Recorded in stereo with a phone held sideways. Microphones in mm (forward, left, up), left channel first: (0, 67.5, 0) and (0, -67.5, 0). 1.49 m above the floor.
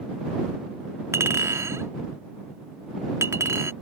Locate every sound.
1.1 s a clink: 20° right (ahead or behind)